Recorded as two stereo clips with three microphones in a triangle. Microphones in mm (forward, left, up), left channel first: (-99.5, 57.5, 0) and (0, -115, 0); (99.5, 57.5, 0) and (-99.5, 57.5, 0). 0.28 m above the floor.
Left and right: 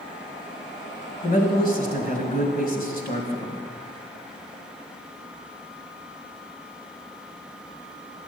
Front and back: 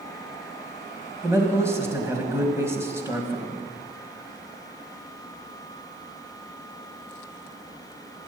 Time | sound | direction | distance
1.2 | a man speaking | 105° left | 1.9 m